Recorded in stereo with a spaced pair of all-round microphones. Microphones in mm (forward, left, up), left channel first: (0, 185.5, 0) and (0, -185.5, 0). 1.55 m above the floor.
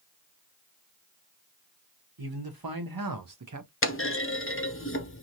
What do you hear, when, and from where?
2.2 s a man speaking: 75° right (ahead or behind), 1.3 m; by 3.7 s 45° right (ahead or behind), 0.6 m
3.8 s a clunk: 35° left (ahead or behind), 0.5 m